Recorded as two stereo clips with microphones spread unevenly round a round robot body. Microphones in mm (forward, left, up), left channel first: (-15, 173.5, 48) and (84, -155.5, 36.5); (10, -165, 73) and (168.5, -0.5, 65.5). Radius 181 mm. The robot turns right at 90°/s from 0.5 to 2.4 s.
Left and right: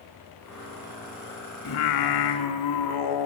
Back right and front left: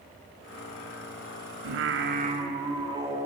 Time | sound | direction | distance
1.6 | singing | 50° left | 0.9 m